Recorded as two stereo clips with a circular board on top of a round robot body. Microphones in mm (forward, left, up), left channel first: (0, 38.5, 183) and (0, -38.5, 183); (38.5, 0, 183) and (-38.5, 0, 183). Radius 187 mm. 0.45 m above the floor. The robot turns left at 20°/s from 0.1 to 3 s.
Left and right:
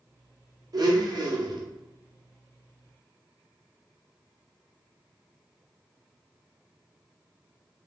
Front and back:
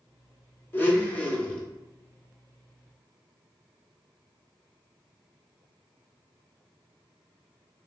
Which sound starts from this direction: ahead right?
A blender, at 0.7 s.